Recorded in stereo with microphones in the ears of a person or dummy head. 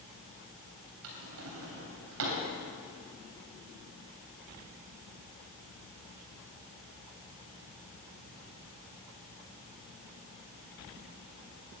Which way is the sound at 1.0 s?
70° right (ahead or behind).